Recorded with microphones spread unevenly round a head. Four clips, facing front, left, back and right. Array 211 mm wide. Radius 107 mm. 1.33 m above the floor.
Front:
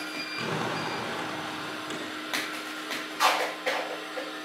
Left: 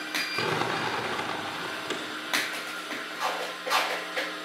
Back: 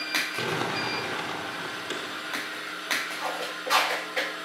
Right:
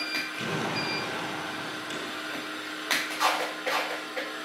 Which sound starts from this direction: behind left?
Crumpling, at 0.4 s.